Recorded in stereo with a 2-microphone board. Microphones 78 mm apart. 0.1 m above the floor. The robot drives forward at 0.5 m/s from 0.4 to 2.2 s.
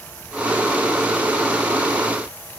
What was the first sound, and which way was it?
Only background noise.